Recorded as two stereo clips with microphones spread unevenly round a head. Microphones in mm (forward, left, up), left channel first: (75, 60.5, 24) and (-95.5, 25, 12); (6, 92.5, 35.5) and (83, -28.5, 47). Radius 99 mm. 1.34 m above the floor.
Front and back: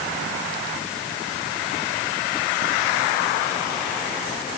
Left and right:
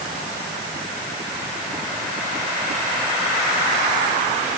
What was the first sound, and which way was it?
Only background noise.